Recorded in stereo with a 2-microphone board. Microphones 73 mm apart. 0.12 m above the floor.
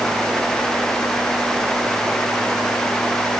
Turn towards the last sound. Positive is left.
No sound to turn to.